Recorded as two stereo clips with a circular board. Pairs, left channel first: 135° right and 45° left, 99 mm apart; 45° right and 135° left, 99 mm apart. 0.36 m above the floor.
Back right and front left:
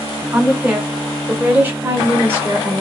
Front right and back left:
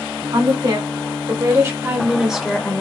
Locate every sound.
0.3 s a woman speaking: 125° left, 1.6 m; by 2.8 s 15° left, 0.9 m